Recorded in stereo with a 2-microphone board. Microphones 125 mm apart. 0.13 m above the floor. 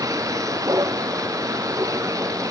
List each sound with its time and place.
0.0 s a vehicle: 25° right (ahead or behind)